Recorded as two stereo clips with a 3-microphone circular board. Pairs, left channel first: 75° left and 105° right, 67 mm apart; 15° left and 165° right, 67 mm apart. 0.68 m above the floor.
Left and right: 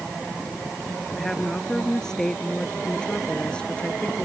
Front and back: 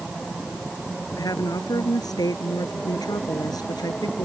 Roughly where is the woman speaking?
Ahead.